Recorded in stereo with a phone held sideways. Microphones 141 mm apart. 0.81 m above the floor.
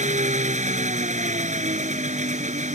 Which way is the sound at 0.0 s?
65° right (ahead or behind).